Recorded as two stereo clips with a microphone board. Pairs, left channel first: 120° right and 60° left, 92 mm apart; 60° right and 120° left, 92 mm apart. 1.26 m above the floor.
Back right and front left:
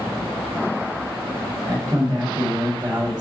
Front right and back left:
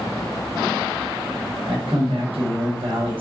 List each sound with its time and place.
1.7 s a man speaking: 100° left, 1.4 m